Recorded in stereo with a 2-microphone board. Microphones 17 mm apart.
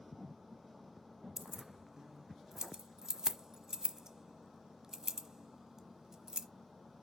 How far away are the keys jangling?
About 0.9 m.